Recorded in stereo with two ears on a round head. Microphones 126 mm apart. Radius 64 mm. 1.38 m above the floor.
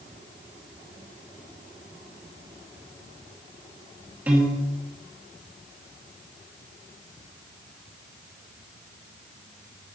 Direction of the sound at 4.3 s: 10° right (ahead or behind).